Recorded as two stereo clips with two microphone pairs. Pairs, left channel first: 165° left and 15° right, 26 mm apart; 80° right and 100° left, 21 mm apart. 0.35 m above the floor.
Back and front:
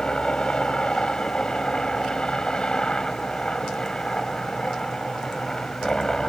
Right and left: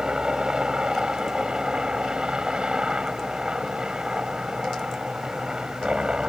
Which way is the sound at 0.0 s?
125° left.